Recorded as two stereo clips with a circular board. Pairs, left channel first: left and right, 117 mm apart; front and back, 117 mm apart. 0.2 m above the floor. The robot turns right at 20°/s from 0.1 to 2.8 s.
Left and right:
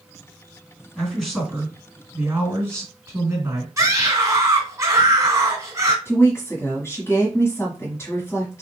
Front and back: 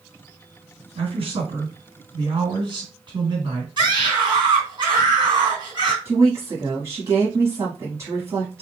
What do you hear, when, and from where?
0.9 s a man speaking: 175° left, 2.5 m; by 3.7 s 150° right, 2.5 m
3.8 s a scream: 145° right, 2.5 m
6.0 s a woman speaking: 140° left, 1.4 m